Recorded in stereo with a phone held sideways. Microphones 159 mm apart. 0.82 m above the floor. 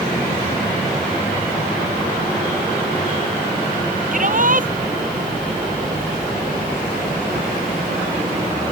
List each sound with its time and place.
4.1 s a shout: 55° right (ahead or behind)